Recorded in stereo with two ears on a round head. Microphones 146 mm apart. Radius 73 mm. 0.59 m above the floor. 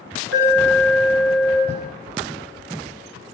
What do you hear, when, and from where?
0.3 s an alarm: 75° right (ahead or behind), 6.5 m
1.7 s writing: 20° right (ahead or behind), 3.5 m